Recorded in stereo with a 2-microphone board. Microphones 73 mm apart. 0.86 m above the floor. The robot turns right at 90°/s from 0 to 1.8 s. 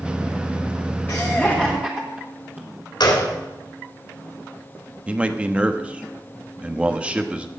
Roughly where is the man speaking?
Centre.